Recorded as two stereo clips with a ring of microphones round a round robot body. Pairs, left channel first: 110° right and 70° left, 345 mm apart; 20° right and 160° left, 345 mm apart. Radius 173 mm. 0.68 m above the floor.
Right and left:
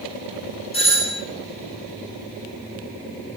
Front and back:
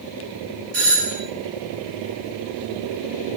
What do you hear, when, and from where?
0.7 s a doorbell: 175° left, 8.5 m